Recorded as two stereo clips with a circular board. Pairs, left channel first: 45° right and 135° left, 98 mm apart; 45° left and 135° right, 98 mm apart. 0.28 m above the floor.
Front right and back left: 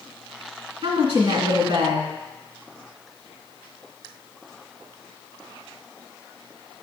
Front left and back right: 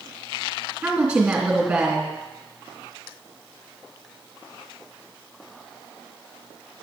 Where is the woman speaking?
150° left, 2.5 m.